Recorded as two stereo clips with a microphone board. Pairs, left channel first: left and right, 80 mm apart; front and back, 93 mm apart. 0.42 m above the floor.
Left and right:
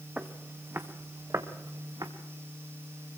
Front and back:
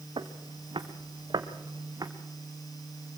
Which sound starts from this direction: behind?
Footsteps, at 0.2 s.